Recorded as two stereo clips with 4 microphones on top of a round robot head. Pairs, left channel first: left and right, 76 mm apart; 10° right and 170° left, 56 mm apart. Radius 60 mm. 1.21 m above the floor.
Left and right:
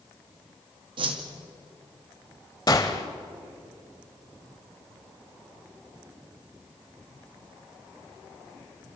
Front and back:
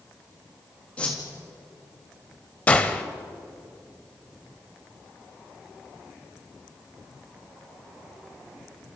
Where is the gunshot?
45° left, 1.2 m.